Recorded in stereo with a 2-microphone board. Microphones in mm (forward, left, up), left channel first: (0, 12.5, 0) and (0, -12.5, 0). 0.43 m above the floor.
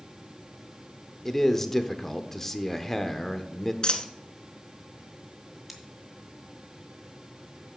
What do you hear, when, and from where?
1.2 s a man speaking: 15° left (ahead or behind), 0.8 m
3.8 s a dropped coin: 45° left (ahead or behind), 1.0 m
5.7 s scissors: 5° right (ahead or behind), 2.0 m